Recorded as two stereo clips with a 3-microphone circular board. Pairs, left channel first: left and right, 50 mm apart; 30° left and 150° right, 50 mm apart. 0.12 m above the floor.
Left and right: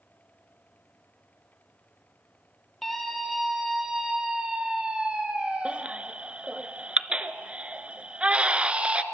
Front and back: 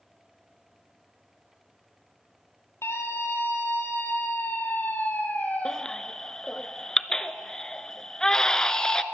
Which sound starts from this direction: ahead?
A scream, at 2.8 s.